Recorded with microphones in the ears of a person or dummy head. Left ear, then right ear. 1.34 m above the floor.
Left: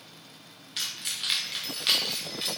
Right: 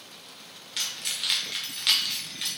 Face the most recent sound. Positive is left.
turn(degrees=0)  # may be behind; listen again after turning